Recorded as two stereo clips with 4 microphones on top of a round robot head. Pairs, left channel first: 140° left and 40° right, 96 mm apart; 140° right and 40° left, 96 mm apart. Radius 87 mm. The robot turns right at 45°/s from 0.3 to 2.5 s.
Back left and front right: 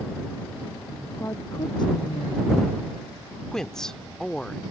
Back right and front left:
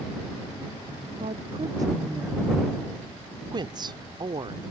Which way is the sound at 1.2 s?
70° left.